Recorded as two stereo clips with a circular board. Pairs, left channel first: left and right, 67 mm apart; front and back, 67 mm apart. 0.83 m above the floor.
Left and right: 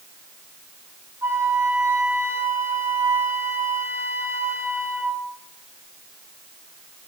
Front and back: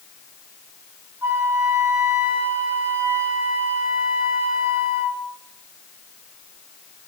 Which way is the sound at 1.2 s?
135° right.